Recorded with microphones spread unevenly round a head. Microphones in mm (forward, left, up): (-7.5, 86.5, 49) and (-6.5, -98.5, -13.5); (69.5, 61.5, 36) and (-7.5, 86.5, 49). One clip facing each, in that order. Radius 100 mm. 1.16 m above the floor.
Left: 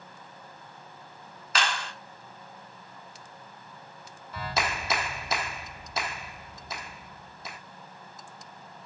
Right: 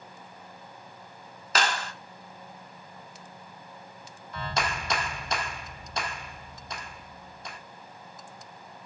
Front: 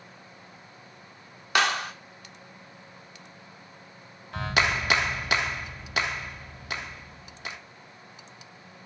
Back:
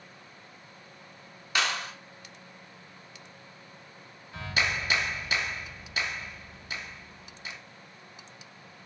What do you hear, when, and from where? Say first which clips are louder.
1.6 s a clap: right 3 dB, front 5 dB; 50° right, 1.2 m
4.3 s a clap: even, front 4 dB; 5° left, 1.3 m